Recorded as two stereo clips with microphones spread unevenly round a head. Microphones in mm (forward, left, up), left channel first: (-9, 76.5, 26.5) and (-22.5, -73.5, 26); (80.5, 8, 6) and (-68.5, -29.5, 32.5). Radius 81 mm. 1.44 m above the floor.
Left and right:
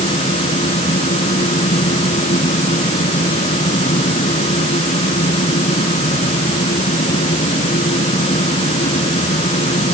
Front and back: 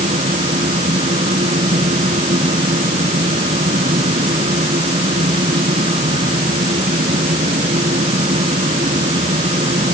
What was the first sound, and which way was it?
A fan, 135° left.